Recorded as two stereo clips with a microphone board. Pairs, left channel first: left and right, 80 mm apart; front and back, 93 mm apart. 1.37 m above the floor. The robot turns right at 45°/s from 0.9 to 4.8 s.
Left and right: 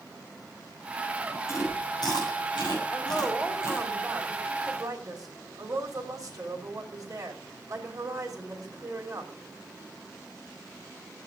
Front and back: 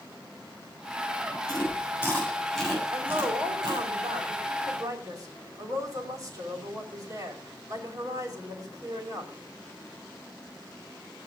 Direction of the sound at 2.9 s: 140° left.